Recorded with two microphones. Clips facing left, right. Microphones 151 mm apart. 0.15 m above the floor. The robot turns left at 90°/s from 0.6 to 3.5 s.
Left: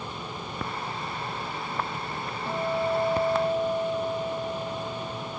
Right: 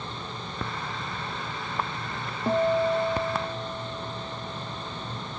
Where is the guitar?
135° right; by 5.4 s 135° left.